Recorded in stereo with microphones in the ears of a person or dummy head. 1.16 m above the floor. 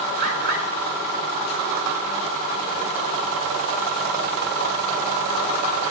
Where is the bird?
60° right (ahead or behind), 4.5 m.